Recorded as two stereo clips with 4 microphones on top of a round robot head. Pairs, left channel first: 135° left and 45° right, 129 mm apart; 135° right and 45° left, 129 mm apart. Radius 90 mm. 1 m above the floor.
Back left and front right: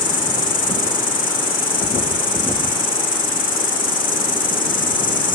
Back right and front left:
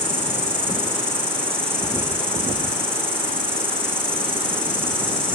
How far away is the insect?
About 2 m.